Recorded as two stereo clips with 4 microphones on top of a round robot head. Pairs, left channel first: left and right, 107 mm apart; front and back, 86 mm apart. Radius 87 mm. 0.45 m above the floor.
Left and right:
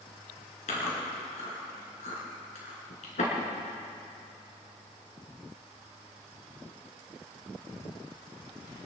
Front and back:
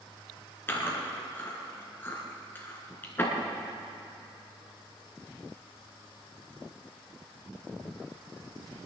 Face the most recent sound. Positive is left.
turn(degrees=65)